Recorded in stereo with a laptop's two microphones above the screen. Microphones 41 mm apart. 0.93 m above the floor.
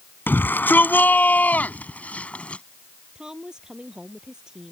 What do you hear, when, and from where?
0.3 s a shout: 55° left (ahead or behind); by 2.6 s 30° left (ahead or behind)
3.1 s a woman speaking: 20° right (ahead or behind)